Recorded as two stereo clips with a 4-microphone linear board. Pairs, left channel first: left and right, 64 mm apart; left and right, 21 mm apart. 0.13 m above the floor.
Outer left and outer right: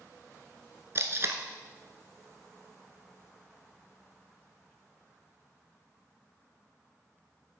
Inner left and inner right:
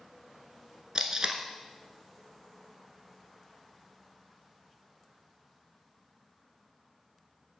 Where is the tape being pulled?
45° right (ahead or behind), 1.0 m.